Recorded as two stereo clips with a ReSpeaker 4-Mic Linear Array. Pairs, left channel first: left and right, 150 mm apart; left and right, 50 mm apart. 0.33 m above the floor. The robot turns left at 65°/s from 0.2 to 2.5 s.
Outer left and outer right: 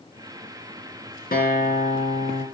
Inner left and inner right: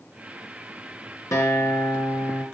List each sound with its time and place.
1.3 s a guitar: 100° left, 5 m; by 2.5 s 25° left, 5 m